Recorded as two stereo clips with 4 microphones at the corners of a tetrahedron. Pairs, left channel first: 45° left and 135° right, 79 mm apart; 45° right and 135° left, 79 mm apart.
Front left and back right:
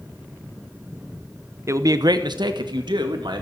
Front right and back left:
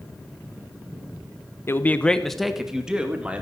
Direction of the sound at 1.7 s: 95° right.